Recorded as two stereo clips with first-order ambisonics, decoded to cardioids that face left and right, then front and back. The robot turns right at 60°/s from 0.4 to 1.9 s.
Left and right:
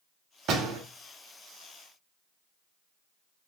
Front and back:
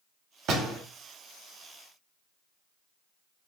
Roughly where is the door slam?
Behind right.